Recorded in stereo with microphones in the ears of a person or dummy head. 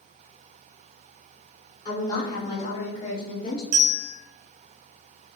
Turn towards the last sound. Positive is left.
turn(degrees=-35)  # may be behind; listen again after turning